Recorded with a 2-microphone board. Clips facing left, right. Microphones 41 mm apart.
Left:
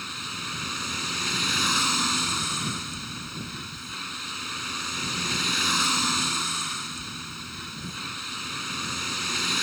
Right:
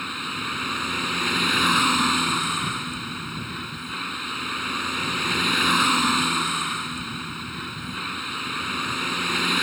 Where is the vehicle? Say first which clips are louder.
Right 5 dB; 25° right (ahead or behind).